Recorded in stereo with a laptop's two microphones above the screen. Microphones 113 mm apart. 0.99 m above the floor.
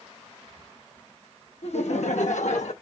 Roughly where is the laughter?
Left.